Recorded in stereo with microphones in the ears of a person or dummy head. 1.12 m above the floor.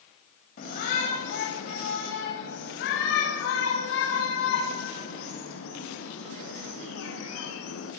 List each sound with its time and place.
0.6 s a shout: 50° left (ahead or behind), 6 m; by 7.9 s 85° left, 10 m